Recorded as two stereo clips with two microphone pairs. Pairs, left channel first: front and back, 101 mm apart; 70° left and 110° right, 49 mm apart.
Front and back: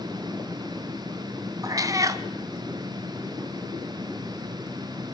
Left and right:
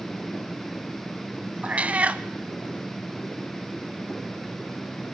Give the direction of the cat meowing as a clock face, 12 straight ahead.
5 o'clock.